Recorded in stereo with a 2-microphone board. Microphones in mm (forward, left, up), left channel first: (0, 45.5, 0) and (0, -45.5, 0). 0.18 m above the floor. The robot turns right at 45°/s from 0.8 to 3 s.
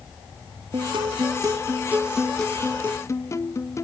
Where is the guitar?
65° right; by 3.8 s 30° left.